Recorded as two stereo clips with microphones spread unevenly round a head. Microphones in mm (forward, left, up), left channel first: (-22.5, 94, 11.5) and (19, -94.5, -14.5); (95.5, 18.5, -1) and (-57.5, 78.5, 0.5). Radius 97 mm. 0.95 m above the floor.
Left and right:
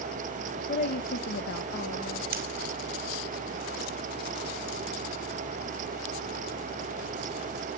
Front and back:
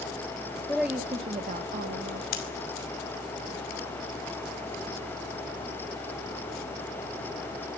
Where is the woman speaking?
60° left, 0.9 m; by 2.2 s 155° left, 1.6 m.